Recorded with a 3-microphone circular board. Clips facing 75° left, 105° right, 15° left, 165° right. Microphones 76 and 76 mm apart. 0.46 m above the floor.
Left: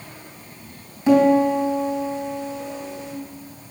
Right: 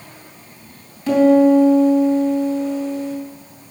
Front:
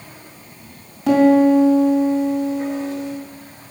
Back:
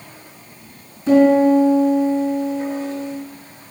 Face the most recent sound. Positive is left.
turn(degrees=0)